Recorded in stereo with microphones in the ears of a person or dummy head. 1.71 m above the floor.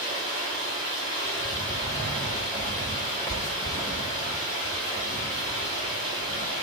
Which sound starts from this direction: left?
Running water, at 0.0 s.